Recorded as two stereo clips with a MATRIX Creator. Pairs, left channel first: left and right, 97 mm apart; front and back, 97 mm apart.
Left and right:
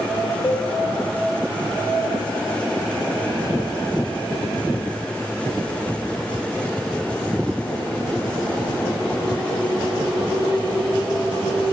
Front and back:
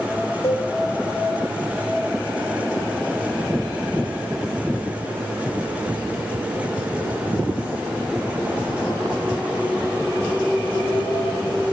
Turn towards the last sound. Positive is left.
turn(degrees=20)